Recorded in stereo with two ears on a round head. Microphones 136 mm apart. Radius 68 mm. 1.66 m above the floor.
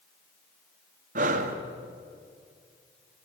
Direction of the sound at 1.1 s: 55° right (ahead or behind).